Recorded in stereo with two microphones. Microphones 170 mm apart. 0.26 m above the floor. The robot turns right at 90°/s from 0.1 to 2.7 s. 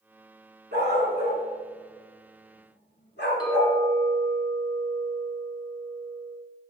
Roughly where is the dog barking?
Right.